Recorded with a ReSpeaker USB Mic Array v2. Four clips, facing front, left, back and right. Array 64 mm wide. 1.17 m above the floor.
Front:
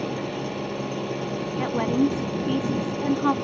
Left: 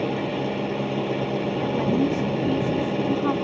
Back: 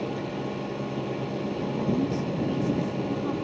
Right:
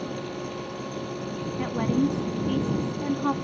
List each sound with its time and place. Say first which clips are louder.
0.0 s an engine running: left 7 dB, front 2 dB; 80° left
1.6 s a woman speaking: left 1 dB, front 6 dB; 5° right